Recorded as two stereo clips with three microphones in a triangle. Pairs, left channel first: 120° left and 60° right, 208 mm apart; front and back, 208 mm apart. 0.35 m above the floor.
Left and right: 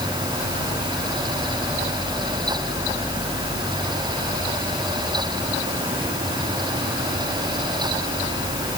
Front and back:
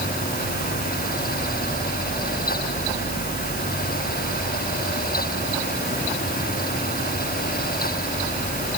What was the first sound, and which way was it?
Only background noise.